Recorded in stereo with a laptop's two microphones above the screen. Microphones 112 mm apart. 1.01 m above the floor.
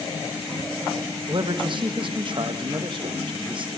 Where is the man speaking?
45° right (ahead or behind), 1.5 m.